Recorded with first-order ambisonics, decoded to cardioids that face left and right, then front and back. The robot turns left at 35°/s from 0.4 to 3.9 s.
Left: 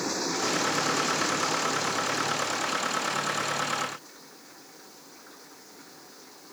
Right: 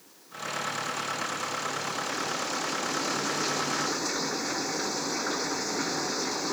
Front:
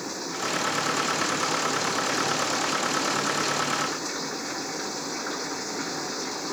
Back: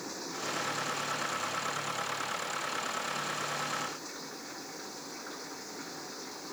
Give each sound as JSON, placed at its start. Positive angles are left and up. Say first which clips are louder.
{"t": 0.0, "sound": "running water", "louder": "left 11 dB, front 7 dB", "azimuth_deg": 65}